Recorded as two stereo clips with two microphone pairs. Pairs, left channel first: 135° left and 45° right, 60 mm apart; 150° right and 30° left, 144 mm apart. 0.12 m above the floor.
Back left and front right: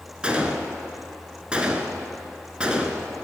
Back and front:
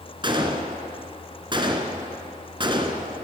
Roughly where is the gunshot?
Ahead.